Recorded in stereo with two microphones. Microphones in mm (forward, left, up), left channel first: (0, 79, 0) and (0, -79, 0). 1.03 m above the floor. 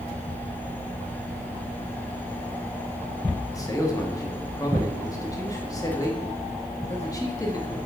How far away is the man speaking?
About 1.6 m.